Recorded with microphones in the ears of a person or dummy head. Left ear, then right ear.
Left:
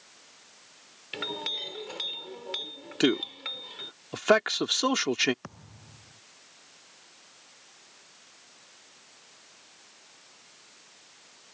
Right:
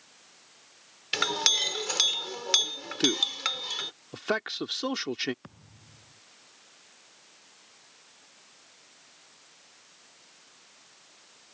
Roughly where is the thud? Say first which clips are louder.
Left 5 dB; left.